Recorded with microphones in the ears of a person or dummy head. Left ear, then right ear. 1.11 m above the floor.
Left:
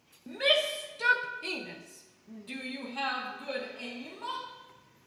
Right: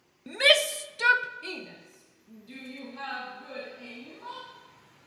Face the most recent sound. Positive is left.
turn(degrees=45)  # may be behind; listen again after turning